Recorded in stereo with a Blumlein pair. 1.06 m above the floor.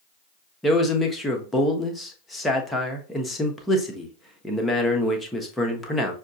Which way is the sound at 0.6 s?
5° left.